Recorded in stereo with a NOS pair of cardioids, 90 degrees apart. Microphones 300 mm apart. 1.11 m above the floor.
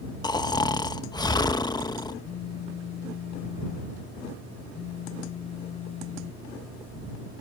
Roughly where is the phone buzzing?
Ahead left.